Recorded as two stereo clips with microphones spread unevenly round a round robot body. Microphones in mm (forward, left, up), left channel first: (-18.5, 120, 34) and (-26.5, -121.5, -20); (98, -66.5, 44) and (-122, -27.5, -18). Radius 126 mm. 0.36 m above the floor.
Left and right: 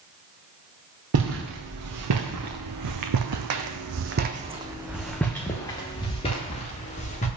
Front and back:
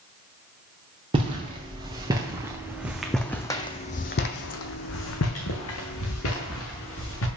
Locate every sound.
1.1 s footsteps: 120° right, 2 m; by 7.3 s 25° left, 2.5 m